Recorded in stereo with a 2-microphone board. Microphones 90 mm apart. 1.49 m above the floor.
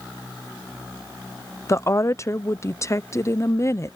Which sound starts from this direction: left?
A woman speaking, at 1.7 s.